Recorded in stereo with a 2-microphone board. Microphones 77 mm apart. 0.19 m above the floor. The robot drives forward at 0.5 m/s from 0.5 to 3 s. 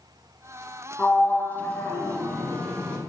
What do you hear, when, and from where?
1.0 s a sliding door: 20° left (ahead or behind), 1.0 m